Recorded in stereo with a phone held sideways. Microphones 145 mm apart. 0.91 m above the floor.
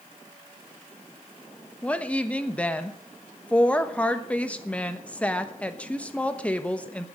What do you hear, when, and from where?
1.8 s a woman speaking: 10° left (ahead or behind), 1.0 m